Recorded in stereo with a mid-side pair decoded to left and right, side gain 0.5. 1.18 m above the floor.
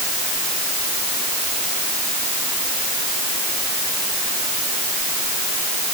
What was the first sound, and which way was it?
Only background noise.